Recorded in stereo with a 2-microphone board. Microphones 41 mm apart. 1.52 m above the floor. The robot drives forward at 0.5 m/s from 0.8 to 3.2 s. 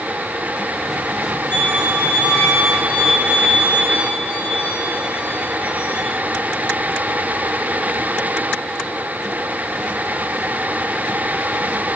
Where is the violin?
55° left (ahead or behind), 1.8 m; by 6.0 s 75° left (ahead or behind), 1.5 m.